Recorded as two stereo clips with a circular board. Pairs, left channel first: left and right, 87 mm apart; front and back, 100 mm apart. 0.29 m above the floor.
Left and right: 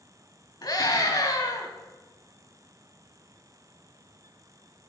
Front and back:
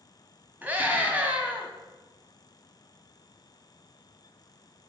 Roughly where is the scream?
Left.